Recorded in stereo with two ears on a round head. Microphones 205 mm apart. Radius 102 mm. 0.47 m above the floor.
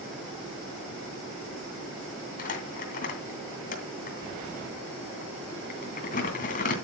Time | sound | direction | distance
2.4 | crumpling | 40° left (ahead or behind) | 2.5 m